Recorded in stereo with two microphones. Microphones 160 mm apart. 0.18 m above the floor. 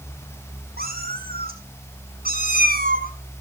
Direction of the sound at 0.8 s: 70° right (ahead or behind).